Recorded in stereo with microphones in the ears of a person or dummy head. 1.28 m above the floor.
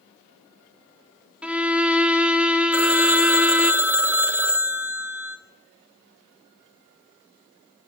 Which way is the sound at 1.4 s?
5° right (ahead or behind).